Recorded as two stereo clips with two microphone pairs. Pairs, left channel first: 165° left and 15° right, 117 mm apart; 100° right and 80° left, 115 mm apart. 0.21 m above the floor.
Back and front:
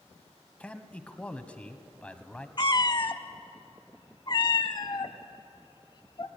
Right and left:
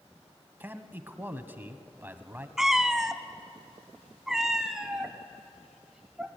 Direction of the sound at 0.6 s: 110° left.